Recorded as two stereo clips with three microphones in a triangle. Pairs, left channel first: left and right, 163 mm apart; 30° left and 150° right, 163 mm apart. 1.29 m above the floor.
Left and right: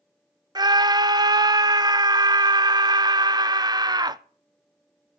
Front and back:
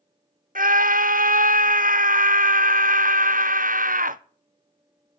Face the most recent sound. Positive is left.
turn(degrees=-150)